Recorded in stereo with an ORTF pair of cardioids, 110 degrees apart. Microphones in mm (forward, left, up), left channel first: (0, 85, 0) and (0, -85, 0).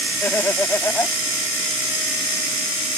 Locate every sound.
0.2 s laughter: 15° left